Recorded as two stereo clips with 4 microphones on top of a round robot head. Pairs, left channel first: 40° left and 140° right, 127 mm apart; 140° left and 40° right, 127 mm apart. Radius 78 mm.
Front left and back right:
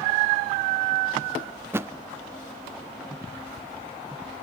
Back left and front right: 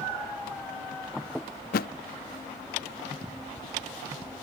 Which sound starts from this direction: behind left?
A thud, at 1.7 s.